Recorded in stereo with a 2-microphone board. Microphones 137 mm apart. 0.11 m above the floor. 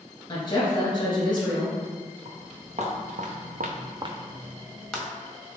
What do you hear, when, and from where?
0.3 s a woman speaking: 30° left (ahead or behind), 1.7 m
2.2 s footsteps: 45° right (ahead or behind), 1.7 m; by 5.1 s 10° left (ahead or behind), 1.3 m